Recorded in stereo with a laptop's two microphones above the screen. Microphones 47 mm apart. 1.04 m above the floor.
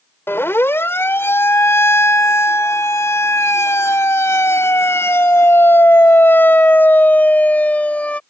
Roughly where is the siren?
Left.